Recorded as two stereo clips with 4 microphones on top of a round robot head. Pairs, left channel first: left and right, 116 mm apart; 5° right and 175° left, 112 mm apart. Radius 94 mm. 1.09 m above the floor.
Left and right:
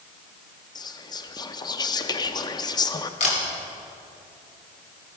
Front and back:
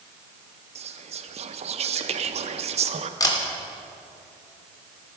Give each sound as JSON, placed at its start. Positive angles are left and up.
{"t": 0.8, "sound": "whispering", "azimuth_deg": 145, "distance_m": 0.6}
{"t": 3.2, "sound": "a camera shutter", "azimuth_deg": 55, "distance_m": 2.5}